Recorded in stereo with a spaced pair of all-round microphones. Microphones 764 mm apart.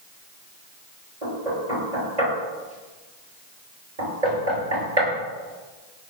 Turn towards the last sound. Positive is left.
turn(degrees=-60)  # may be behind; listen again after turning